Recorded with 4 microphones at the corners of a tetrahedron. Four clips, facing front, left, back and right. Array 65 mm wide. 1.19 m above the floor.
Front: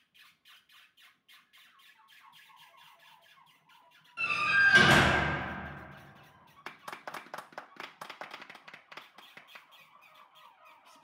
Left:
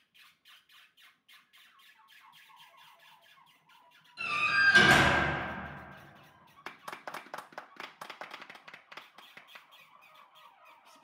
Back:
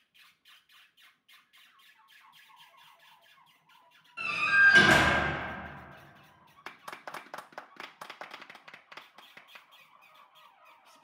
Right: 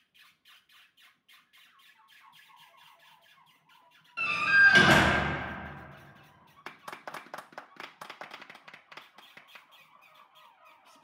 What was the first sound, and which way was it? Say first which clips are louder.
A door slam: right 6 dB, back 2 dB; 100° right.